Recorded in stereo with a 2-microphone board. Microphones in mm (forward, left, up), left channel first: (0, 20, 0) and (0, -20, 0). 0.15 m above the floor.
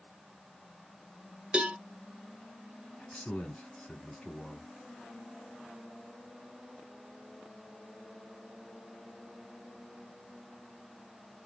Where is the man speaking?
15° left (ahead or behind), 1.5 m.